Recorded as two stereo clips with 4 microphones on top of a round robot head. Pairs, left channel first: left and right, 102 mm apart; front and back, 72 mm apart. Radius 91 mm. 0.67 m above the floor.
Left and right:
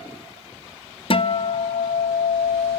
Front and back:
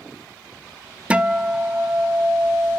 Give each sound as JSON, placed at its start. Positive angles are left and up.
{"t": 1.1, "sound": "a guitar", "azimuth_deg": 105, "distance_m": 0.8}